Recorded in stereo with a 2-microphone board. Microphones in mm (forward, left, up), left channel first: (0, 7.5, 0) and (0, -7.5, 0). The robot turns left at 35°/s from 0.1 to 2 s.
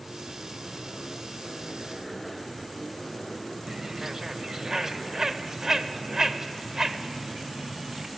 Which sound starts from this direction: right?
A bird, at 3.7 s.